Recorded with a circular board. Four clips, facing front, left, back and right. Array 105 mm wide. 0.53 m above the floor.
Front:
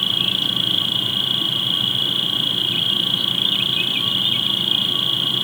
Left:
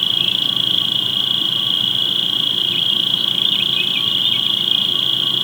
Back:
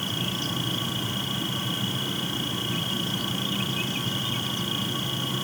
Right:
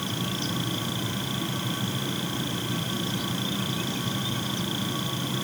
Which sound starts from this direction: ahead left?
An insect, at 0.0 s.